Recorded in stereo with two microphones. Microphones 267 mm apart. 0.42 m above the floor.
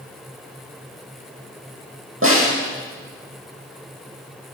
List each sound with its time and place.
2.2 s a snare drum: 50° right (ahead or behind), 9 m